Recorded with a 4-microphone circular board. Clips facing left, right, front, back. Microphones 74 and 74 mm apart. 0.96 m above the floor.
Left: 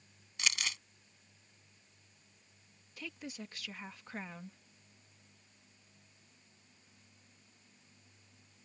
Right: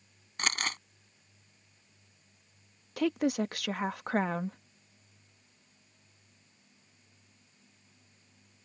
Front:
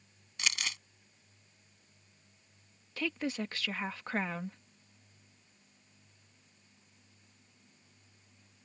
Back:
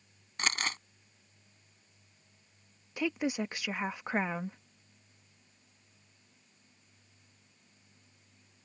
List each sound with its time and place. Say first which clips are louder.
0.4 s crumpling: right 5 dB, back 4 dB; 135° right
3.0 s a woman speaking: right 18 dB, back 3 dB; 105° right